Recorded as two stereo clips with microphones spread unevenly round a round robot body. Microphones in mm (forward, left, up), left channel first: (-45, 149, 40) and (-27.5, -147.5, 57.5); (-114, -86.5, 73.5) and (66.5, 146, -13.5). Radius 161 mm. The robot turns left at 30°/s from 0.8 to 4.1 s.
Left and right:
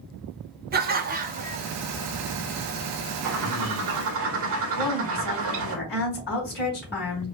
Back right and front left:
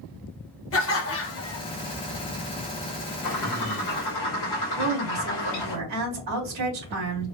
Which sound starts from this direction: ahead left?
A woman speaking, at 4.8 s.